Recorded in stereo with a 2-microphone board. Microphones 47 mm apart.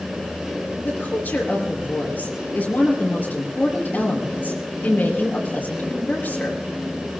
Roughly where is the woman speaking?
Left.